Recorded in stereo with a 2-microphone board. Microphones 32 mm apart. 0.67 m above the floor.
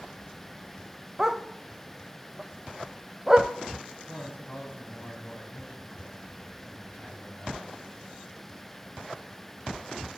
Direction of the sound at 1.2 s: 20° right (ahead or behind).